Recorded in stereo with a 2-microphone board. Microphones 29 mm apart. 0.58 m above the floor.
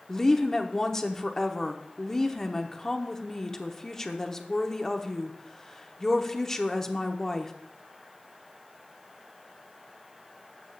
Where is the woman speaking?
15° left (ahead or behind), 0.9 m.